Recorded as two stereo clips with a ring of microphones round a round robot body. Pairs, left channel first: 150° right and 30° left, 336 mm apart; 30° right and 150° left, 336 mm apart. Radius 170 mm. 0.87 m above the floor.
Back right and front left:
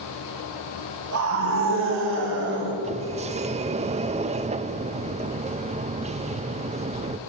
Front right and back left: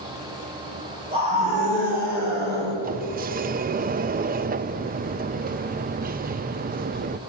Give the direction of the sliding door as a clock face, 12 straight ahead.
9 o'clock.